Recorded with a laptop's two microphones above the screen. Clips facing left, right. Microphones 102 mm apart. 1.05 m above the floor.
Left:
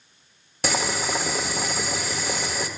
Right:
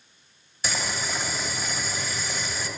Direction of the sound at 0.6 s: 70° left (ahead or behind).